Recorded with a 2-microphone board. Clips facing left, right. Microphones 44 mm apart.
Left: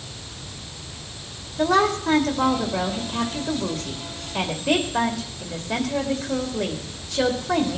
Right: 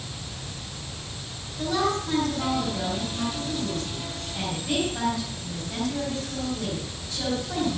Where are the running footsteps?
No running footsteps in this recording.